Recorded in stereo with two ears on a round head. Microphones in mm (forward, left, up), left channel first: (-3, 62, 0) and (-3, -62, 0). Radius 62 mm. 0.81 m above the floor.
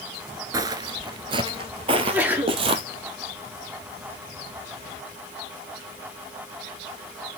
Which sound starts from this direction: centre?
A sneeze, at 1.9 s.